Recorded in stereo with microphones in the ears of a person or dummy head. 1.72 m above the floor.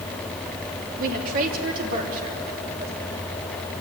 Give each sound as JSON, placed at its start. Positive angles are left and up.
{"t": 1.0, "sound": "a woman speaking", "side_deg": -45, "distance_m": 3.0}